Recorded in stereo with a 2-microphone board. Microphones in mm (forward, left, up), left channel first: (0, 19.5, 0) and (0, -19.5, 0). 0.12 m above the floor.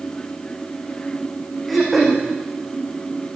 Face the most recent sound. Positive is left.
turn(degrees=-5)  # may be behind; listen again after turning